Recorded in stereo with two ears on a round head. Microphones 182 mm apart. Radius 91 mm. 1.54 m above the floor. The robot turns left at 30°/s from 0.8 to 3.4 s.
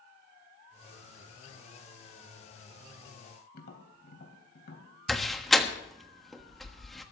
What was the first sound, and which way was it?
Tapping, 55° left (ahead or behind).